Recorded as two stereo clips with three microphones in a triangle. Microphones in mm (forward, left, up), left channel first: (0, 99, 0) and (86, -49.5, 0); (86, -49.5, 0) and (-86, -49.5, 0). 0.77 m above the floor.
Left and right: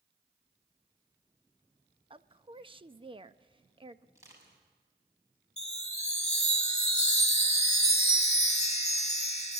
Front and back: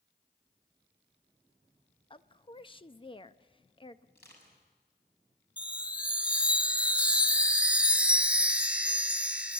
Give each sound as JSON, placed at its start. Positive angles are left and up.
{"t": 2.1, "sound": "a woman speaking", "azimuth_deg": -30, "distance_m": 0.6}
{"t": 4.2, "sound": "crushing", "azimuth_deg": 10, "distance_m": 6.5}
{"t": 5.6, "sound": "a chime", "azimuth_deg": 100, "distance_m": 0.8}